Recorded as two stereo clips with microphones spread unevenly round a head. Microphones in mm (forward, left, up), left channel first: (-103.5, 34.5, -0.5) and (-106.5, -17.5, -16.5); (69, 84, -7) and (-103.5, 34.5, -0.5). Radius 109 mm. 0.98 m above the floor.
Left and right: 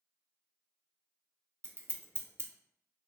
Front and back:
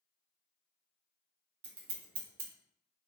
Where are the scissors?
140° right, 0.6 m.